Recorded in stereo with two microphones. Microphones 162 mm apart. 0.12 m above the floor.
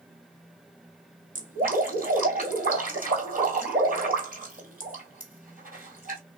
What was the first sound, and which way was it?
Dripping, 60° right (ahead or behind).